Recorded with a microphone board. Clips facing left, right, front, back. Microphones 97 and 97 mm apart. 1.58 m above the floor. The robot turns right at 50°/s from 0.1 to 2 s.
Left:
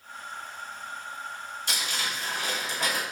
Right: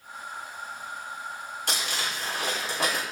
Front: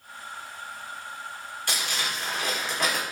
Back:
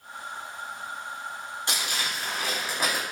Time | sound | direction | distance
1.7 | crumpling | 115° right | 4 m